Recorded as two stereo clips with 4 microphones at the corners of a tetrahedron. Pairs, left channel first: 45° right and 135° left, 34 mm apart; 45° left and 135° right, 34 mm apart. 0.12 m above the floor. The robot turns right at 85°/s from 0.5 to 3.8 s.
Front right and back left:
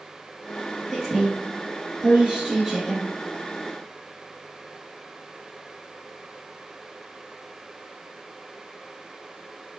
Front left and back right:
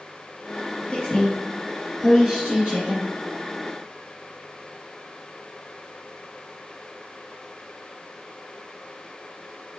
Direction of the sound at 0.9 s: 50° left.